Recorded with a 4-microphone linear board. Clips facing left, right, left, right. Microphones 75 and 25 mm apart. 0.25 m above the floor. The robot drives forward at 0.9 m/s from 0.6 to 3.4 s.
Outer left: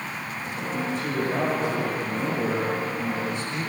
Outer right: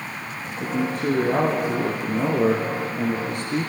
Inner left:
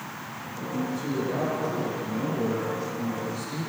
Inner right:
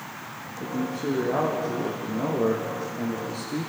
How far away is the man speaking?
About 7 m.